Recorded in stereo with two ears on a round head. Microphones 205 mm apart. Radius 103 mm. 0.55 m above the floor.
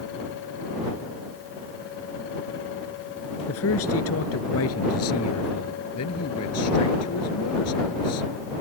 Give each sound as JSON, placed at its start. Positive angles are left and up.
{"t": 3.5, "sound": "a man speaking", "side_deg": 65}
{"t": 5.9, "sound": "a man speaking", "side_deg": 75}